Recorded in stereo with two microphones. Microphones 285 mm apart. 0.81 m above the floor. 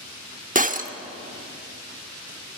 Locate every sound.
0.6 s breaking glass: 30° right (ahead or behind), 0.9 m